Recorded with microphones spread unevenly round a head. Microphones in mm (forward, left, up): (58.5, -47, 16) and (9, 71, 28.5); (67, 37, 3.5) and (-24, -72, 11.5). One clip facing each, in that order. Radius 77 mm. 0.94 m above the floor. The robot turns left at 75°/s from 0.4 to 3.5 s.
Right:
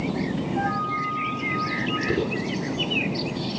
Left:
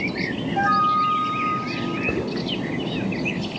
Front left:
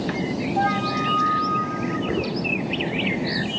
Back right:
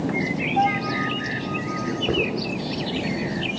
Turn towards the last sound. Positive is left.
turn(degrees=55)